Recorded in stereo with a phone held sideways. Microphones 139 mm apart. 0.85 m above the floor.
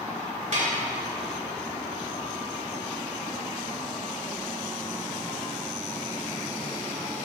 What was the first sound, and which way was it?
Dishes clattering, 60° right (ahead or behind).